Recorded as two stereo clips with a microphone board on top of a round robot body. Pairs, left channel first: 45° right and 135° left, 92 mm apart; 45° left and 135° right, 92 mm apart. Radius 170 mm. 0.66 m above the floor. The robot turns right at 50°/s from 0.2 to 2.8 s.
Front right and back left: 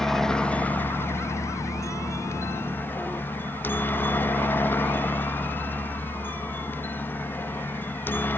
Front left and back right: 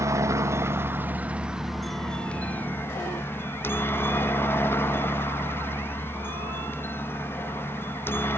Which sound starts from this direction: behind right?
A helicopter, at 0.0 s.